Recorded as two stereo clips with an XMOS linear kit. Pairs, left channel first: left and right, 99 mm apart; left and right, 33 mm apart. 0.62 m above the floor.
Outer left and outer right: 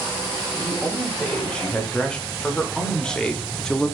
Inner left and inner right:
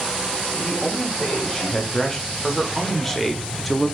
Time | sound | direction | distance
0.6 | a man speaking | 10° left (ahead or behind) | 3 m